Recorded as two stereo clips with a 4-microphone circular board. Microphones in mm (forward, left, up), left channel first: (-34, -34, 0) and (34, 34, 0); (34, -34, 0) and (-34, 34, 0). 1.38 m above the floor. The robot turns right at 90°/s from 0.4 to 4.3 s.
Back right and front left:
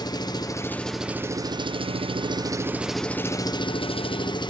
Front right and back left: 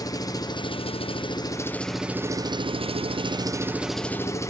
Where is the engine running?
95° right, 0.7 m; by 4.5 s 105° right, 0.7 m.